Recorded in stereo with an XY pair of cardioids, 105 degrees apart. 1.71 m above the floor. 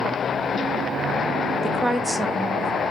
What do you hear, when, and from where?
1.6 s a woman speaking: 10° right, 0.7 m